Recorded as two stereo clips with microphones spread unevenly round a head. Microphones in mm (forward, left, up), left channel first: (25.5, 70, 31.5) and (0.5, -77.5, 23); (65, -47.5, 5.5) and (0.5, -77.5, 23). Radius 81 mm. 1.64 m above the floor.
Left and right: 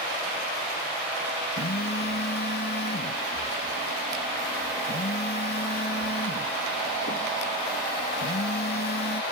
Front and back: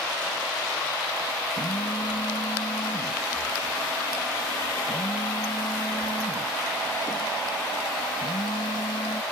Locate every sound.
1.6 s a phone buzzing: 60° left